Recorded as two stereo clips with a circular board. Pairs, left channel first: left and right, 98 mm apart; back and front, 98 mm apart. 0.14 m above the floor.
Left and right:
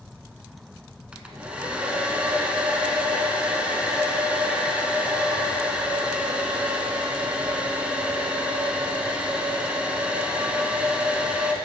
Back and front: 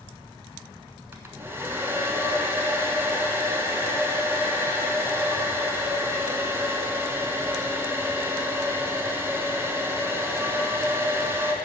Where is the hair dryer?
25° right, 0.9 m.